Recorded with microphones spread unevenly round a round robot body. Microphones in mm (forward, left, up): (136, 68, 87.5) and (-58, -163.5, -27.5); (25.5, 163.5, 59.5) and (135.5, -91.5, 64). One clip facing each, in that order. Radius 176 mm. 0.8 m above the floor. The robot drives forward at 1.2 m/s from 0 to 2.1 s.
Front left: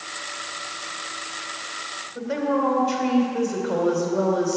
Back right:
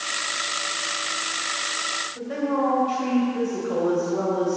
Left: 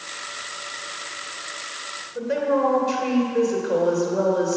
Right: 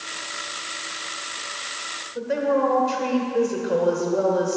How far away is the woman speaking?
About 2.5 m.